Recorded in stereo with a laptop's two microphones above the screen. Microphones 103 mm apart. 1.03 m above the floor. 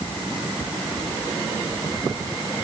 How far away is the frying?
No frying in this recording.